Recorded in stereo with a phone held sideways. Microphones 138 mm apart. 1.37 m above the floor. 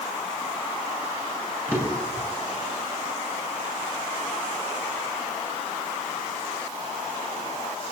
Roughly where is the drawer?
Centre.